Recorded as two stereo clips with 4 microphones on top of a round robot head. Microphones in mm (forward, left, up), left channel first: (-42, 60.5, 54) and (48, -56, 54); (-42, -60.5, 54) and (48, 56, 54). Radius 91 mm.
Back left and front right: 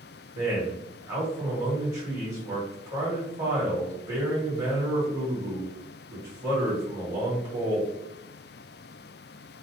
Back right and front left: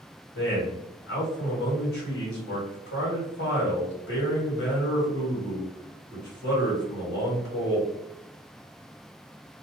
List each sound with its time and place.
0.3 s a man speaking: 125° right, 1.6 m